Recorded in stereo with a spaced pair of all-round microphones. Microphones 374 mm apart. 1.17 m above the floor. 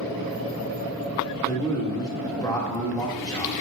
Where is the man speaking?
10° left (ahead or behind), 1.8 m.